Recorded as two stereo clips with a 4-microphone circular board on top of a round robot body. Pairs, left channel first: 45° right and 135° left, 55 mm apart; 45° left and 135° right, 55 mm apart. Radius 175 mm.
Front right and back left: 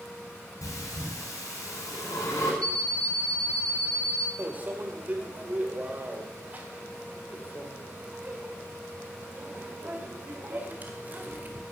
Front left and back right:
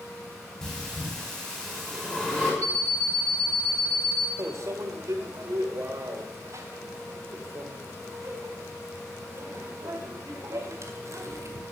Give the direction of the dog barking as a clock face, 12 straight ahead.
I don't hear a dog barking.